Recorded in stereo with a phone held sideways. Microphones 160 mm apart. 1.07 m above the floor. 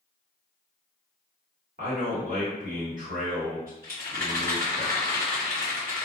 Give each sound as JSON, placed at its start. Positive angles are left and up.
{"t": 1.8, "sound": "a man speaking", "side_deg": -65, "distance_m": 1.2}
{"t": 3.8, "sound": "a rattle", "side_deg": -60, "distance_m": 1.6}